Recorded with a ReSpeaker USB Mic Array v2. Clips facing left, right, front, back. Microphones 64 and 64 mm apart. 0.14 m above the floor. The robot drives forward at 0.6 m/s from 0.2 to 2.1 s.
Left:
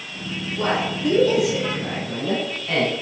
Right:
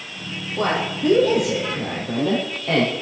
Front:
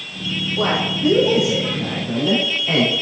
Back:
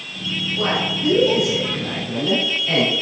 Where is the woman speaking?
60° right, 3.5 m; by 3.0 s 75° right, 3 m.